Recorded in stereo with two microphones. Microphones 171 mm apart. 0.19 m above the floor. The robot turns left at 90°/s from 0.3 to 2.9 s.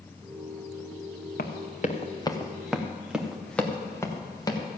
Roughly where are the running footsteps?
Left.